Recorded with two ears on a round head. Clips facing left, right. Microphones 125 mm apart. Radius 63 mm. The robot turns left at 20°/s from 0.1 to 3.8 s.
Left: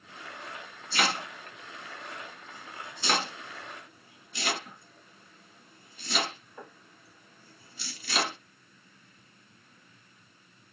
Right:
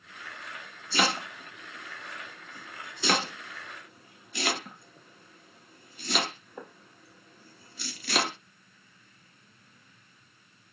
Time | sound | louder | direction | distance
0.9 | chopping | right 2 dB | 75° right (ahead or behind) | 0.7 m